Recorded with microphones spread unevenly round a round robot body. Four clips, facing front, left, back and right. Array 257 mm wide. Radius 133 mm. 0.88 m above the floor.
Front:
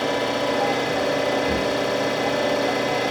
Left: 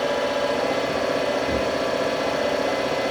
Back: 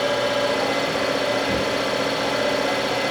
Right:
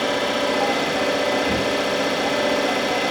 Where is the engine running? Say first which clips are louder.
Right 1 dB, back 1 dB; 70° right, 2 m.